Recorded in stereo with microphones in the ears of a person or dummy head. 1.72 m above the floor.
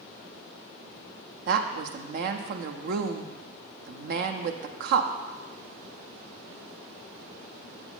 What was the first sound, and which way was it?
A woman speaking, 55° right (ahead or behind).